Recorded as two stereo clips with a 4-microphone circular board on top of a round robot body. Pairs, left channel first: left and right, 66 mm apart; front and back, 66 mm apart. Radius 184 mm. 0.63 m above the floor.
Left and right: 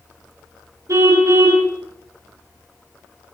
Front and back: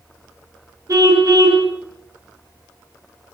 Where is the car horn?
135° right, 5 m.